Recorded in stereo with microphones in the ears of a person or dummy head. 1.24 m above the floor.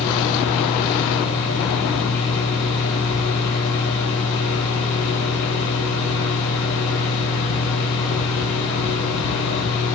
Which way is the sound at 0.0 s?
60° left (ahead or behind).